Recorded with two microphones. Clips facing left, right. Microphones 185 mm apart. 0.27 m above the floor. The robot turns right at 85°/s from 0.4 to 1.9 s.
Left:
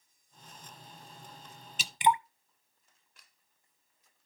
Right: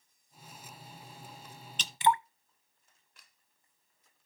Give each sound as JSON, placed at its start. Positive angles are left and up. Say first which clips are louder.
{"t": 1.8, "sound": "dripping", "louder": "left 1 dB", "side_deg": 10, "distance_m": 0.5}